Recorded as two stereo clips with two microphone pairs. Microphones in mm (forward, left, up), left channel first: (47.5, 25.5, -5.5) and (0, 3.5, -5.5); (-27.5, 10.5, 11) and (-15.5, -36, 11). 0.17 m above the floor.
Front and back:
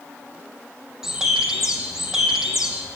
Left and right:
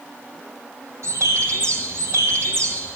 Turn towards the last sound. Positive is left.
turn(degrees=-75)